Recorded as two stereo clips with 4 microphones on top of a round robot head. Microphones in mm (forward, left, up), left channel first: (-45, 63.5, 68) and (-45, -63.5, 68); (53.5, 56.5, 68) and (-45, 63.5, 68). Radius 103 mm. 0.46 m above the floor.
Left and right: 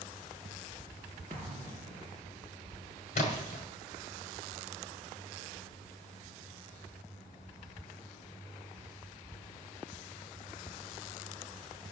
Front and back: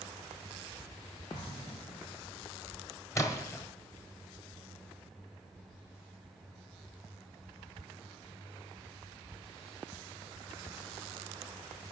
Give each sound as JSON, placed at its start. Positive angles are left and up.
{"t": 1.3, "sound": "an explosion", "azimuth_deg": -40, "distance_m": 2.5}
{"t": 3.1, "sound": "a splash", "azimuth_deg": 55, "distance_m": 1.6}